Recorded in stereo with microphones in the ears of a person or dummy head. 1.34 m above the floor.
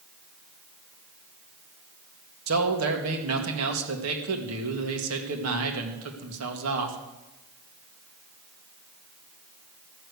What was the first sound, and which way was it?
A man speaking, 80° right.